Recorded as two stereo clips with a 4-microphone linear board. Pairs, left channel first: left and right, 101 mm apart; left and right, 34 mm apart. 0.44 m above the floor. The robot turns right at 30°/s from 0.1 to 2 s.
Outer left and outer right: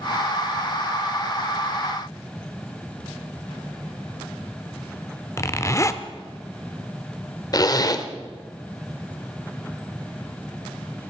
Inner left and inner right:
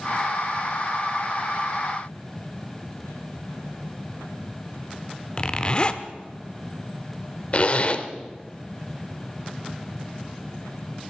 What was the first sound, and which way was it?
A zipper, 30° left (ahead or behind).